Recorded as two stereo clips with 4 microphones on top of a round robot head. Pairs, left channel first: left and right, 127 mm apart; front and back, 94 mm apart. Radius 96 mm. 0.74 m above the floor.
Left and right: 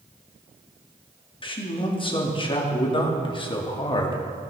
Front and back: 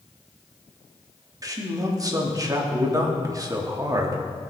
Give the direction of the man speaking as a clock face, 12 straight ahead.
8 o'clock.